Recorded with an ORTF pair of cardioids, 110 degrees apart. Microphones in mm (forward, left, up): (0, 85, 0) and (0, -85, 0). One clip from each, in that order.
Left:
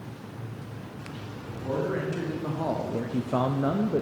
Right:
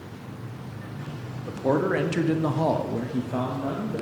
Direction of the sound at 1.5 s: 65° right.